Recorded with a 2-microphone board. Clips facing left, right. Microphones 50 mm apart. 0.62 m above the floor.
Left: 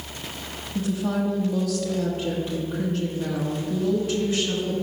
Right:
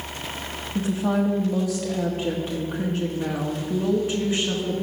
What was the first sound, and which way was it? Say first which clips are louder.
A woman speaking: right 2 dB; 25° right (ahead or behind).